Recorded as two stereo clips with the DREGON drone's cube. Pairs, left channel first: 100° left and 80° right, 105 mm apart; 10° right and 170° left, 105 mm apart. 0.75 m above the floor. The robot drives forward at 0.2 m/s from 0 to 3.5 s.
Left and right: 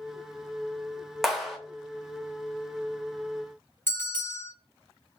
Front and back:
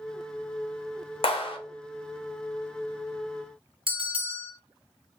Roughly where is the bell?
Behind.